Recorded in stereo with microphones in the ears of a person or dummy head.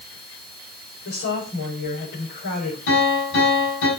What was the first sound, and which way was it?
A woman speaking, 80° left.